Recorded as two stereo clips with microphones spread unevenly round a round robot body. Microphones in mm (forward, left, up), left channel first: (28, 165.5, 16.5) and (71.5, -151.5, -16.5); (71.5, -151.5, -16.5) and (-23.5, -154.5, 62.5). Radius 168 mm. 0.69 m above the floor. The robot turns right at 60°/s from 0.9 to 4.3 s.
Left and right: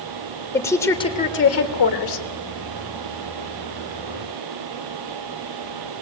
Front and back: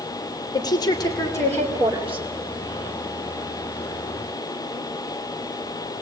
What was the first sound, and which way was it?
A woman speaking, 15° left.